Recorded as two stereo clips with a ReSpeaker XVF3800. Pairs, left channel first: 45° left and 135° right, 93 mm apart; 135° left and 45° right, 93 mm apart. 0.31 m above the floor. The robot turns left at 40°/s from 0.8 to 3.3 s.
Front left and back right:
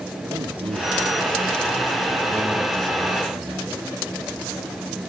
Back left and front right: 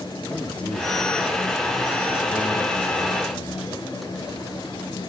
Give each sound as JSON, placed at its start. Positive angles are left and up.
{"t": 0.3, "sound": "a man speaking", "azimuth_deg": -150, "distance_m": 5.0}